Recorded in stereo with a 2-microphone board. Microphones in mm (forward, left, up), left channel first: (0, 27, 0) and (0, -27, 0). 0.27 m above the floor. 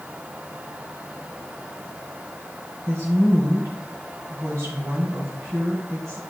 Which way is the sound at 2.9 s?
60° right (ahead or behind).